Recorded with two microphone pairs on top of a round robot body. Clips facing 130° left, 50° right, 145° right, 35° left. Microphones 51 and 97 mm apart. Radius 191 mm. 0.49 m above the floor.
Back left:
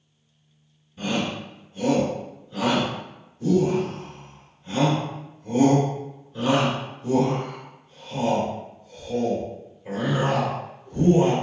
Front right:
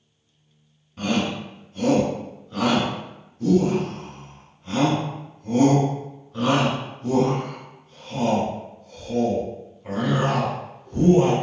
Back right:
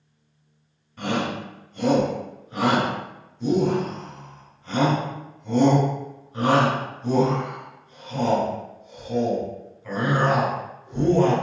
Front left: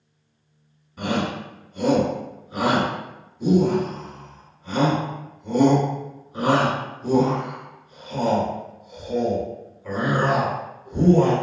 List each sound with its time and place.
1.0 s a shout: 45° right, 1.8 m